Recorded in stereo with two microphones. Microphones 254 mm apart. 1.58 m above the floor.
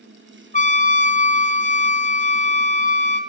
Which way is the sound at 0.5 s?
30° left (ahead or behind).